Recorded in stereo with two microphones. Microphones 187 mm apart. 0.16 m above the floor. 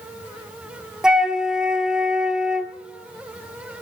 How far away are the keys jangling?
I don't hear keys jangling.